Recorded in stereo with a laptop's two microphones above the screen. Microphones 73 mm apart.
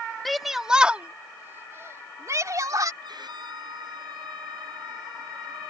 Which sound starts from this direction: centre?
A shout, at 0.2 s.